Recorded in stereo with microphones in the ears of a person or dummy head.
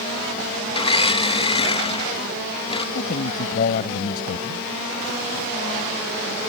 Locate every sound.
0.7 s a blender: 25° left (ahead or behind)
3.0 s a man speaking: 45° left (ahead or behind)